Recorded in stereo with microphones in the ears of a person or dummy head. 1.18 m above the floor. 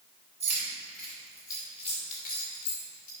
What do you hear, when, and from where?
0.4 s keys jangling: 15° right (ahead or behind), 2.5 m; by 3.1 s 65° left (ahead or behind), 3 m